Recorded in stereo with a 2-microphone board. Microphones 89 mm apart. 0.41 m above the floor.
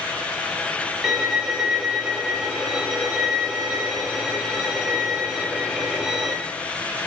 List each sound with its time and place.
1.0 s a violin: 5° right (ahead or behind), 0.6 m